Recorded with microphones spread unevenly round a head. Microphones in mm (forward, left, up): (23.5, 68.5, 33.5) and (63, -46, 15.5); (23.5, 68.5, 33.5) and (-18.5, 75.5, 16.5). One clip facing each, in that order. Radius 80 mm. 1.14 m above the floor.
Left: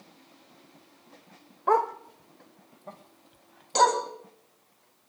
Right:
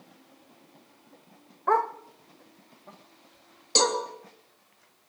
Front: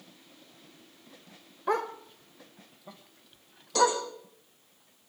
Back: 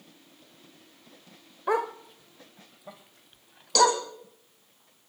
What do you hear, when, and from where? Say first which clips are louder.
1.7 s a dog barking: left 1 dB, back 2 dB; 60° left, 0.9 m; by 4.0 s 90° left, 2 m
3.8 s a cowbell: left 4 dB, back 3 dB; 140° right, 3.5 m